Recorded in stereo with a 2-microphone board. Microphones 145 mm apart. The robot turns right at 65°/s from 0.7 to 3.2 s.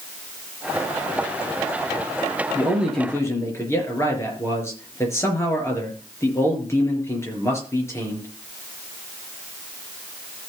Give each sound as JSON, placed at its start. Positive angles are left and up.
{"t": 2.5, "sound": "a man speaking", "azimuth_deg": -25, "distance_m": 5.0}